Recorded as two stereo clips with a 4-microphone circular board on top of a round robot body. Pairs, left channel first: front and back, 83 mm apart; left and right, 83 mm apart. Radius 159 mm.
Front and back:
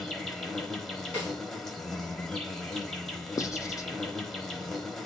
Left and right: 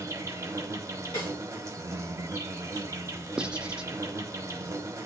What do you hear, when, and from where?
0.0 s an insect: 85° right, 1.1 m
1.1 s a snare drum: 65° left, 3 m
3.4 s writing: 15° right, 0.6 m